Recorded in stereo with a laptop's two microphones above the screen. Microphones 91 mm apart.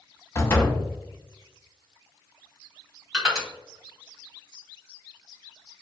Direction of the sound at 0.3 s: 30° left (ahead or behind).